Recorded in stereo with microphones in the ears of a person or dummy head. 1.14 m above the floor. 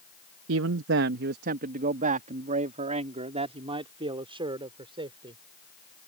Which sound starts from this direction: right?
A man speaking, at 0.5 s.